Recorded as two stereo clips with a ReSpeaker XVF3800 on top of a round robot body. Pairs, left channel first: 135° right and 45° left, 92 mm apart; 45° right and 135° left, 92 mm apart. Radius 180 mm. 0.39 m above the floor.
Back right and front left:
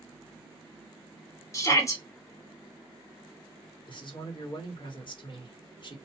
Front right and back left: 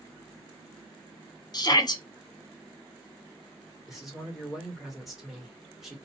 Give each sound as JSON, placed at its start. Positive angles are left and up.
{"t": 1.5, "sound": "a shout", "azimuth_deg": -85, "distance_m": 1.4}
{"t": 3.9, "sound": "a man speaking", "azimuth_deg": -135, "distance_m": 1.7}